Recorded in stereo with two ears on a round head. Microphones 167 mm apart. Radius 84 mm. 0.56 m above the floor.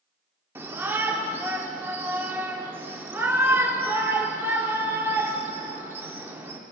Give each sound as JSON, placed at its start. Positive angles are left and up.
{"t": 0.6, "sound": "a shout", "side_deg": -15, "distance_m": 1.3}